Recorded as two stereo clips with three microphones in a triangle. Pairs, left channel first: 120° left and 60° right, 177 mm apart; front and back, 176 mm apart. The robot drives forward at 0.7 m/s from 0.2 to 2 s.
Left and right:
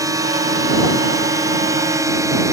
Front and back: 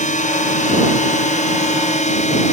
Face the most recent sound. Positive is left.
turn(degrees=5)